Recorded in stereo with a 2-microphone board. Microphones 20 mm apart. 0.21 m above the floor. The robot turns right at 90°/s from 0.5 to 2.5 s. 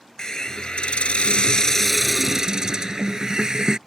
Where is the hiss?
40° left; by 3.8 s 140° right.